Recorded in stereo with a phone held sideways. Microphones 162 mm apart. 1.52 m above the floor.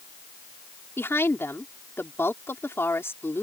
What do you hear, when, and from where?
1.0 s a woman speaking: 15° left (ahead or behind)